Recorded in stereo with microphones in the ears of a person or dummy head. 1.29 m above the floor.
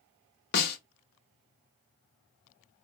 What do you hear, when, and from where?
0.5 s a snare drum: 50° left (ahead or behind), 0.8 m